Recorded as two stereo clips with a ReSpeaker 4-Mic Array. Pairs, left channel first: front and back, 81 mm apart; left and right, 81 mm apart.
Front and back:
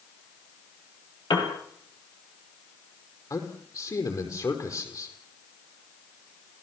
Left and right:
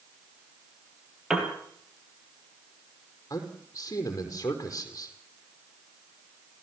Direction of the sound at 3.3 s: 45° left.